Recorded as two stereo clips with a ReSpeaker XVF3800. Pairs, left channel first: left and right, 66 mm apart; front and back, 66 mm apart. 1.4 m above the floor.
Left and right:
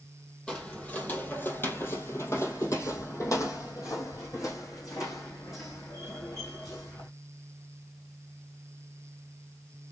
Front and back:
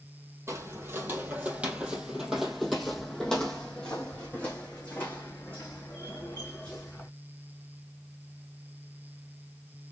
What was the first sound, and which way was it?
Footsteps, 155° left.